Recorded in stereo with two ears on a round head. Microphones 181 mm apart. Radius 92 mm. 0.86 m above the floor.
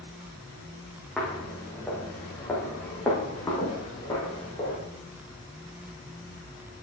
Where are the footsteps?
Centre (ahead or behind), 3 m; by 4.8 s 10° left (ahead or behind), 5.5 m.